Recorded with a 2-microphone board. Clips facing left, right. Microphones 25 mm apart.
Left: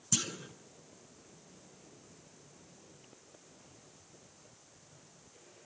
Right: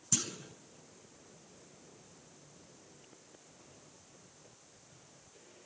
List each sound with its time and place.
0.1 s a clunk: 25° left (ahead or behind), 1.3 m